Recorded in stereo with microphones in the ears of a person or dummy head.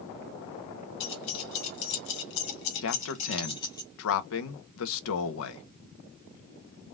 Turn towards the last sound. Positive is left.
turn(degrees=75)  # may be behind; listen again after turning